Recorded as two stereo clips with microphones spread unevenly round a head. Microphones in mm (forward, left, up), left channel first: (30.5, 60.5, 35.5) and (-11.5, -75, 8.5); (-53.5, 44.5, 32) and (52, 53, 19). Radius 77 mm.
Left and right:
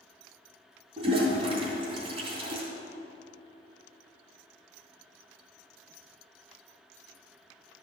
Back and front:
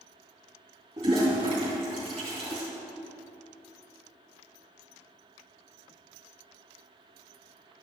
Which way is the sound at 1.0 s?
55° right.